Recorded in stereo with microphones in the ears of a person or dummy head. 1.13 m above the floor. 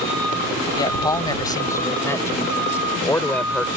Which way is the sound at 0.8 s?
20° left (ahead or behind).